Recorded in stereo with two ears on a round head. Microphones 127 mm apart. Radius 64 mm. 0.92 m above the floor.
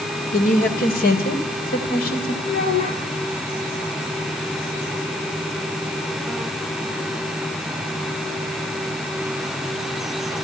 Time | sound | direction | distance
0.3 | a woman speaking | 65° left (ahead or behind) | 2 m
2.4 | a child speaking | 65° left (ahead or behind) | 7 m